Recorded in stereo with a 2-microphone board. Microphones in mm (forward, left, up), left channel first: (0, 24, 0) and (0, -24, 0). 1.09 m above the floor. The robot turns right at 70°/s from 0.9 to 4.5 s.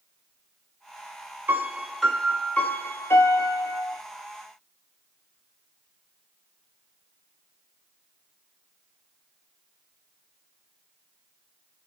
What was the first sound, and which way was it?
A piano, 40° right.